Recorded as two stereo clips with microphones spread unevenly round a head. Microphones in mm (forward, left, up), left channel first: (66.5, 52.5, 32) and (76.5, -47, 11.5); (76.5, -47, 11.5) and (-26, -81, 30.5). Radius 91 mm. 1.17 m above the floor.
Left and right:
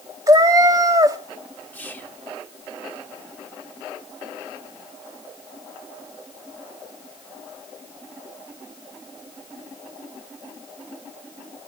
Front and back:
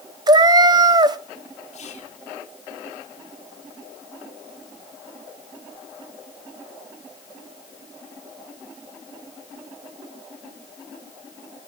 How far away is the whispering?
About 1.3 m.